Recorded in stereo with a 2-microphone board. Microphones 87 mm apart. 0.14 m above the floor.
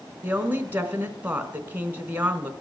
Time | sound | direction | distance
0.2 | a woman speaking | 20° right (ahead or behind) | 1.2 m